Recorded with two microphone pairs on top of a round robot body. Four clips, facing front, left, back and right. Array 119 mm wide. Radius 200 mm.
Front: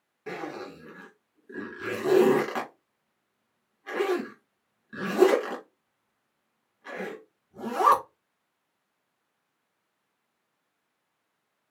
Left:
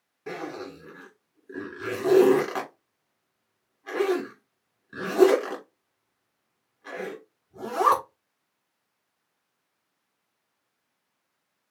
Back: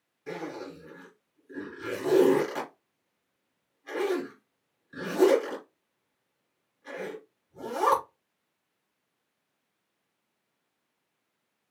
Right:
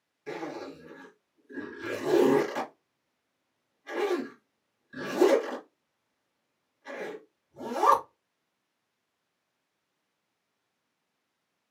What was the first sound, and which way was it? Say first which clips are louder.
A zipper: left 2 dB, front 1 dB; 60° left.